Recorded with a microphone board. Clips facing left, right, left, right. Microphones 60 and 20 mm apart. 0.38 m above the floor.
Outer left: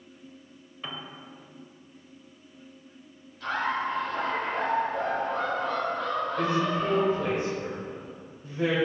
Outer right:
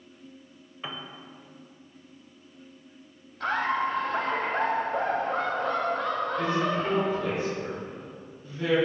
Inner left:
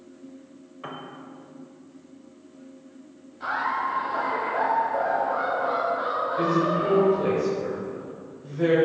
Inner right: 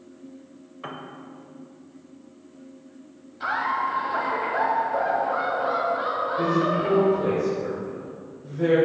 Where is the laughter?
60° right (ahead or behind), 1.8 m.